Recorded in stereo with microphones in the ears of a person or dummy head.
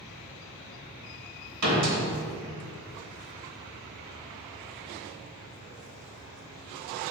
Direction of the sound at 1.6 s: 85° right.